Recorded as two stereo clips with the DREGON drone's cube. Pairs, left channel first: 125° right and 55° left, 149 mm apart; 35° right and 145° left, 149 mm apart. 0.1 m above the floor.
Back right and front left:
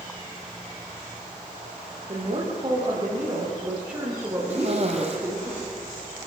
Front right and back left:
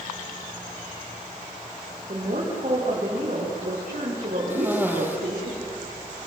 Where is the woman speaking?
105° left, 6.5 m; by 5.5 s 130° left, 7 m.